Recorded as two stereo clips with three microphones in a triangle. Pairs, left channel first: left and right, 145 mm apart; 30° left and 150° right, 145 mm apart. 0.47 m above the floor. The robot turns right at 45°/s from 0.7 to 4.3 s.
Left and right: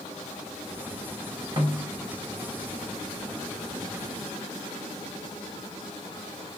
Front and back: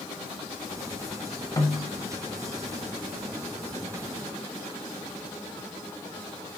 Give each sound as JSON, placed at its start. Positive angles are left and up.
{"t": 1.6, "sound": "a snare drum", "azimuth_deg": -35, "distance_m": 1.1}